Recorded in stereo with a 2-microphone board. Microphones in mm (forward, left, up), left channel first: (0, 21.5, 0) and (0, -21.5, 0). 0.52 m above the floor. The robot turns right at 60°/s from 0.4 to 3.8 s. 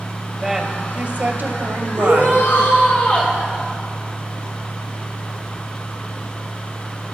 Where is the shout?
75° left, 6.5 m; by 3.3 s 155° left, 6.5 m.